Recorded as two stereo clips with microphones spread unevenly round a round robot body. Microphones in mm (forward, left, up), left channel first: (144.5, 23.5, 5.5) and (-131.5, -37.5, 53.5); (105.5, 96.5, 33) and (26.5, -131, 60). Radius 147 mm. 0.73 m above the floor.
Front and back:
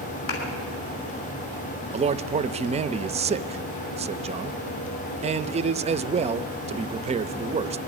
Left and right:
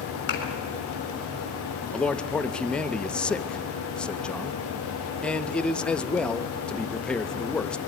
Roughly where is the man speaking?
Behind left.